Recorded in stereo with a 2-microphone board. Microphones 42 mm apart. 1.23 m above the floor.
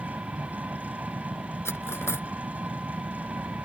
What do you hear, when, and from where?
0.0 s an engine running: 40° right (ahead or behind)
1.6 s cutlery clinking: 85° left